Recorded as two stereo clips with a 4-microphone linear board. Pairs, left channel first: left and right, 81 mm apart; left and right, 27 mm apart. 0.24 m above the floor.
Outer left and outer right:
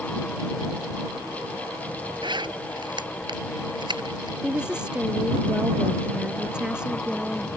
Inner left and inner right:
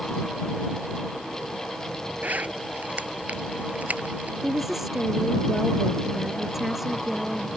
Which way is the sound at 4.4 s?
10° right (ahead or behind).